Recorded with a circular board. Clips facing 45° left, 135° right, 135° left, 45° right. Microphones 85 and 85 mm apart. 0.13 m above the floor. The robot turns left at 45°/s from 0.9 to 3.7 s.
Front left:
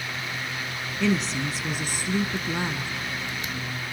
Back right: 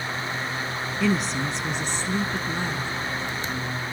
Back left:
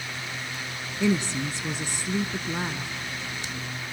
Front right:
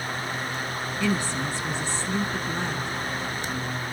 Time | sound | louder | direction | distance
1.0 | a woman speaking | even, back left 2 dB | 145° left | 1.1 m